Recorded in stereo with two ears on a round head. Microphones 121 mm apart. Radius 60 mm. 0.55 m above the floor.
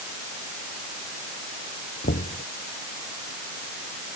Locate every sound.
2.0 s knocking: 80° left